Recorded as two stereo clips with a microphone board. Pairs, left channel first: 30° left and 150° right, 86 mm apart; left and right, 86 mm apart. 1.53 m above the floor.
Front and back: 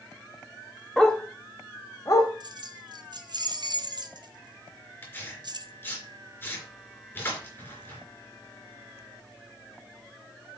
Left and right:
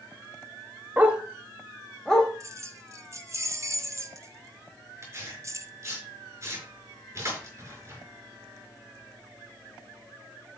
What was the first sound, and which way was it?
A dog barking, 50° right.